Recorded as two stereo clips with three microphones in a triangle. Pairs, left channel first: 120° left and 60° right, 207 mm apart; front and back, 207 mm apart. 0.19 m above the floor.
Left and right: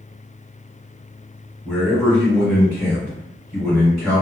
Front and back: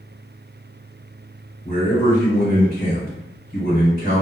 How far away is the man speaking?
About 1.7 m.